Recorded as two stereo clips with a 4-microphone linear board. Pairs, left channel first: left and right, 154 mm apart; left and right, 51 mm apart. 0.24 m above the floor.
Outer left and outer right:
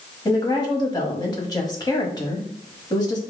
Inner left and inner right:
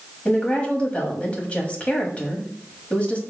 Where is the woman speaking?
25° left (ahead or behind), 1.0 m.